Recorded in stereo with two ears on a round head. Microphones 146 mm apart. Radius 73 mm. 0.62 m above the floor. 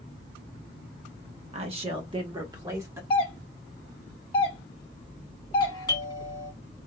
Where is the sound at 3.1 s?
30° left (ahead or behind), 1.4 m.